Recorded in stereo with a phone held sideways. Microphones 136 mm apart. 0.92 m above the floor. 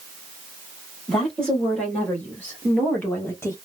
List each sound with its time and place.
1.1 s a woman speaking: 5° left (ahead or behind), 2.0 m; by 3.6 s 20° left (ahead or behind), 0.8 m